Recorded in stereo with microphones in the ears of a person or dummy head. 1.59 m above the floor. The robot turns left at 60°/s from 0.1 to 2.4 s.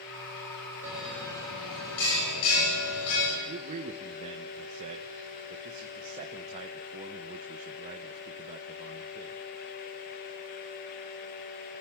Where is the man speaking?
35° right (ahead or behind), 1.3 m.